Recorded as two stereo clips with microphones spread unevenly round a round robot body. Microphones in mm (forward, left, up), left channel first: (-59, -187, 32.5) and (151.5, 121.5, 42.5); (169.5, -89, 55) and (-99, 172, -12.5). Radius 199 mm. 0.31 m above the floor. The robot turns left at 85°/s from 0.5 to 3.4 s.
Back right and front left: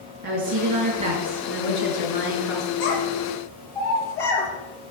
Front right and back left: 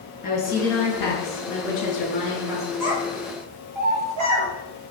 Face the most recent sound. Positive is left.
turn(degrees=150)